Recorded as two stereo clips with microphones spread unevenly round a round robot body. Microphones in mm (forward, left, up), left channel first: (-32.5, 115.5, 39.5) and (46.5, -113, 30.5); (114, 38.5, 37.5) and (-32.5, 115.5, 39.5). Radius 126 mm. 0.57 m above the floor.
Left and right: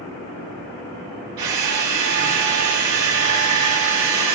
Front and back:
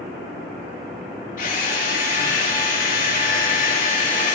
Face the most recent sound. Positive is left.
turn(degrees=-75)